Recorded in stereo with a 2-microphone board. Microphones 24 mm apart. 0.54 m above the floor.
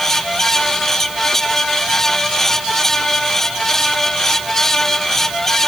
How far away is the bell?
I don't hear a bell.